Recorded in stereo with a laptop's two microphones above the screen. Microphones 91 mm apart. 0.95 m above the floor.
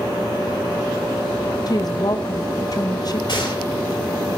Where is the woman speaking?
45° left (ahead or behind), 1.1 m.